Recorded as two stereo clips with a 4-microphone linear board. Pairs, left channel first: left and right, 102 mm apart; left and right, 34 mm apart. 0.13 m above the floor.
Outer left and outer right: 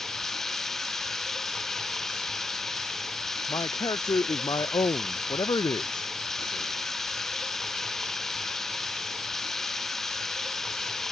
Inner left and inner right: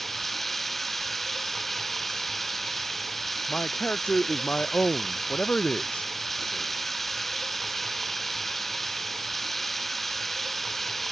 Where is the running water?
5° left (ahead or behind).